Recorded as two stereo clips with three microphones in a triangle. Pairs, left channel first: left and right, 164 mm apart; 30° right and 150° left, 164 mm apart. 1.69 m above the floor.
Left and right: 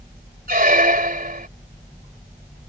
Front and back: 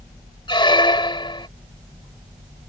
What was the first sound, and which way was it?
A squeak, 85° right.